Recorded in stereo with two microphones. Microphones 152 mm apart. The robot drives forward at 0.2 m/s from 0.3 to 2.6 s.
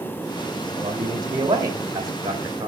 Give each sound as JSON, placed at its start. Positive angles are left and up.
{"t": 0.8, "sound": "a man speaking", "side_deg": -25, "distance_m": 2.5}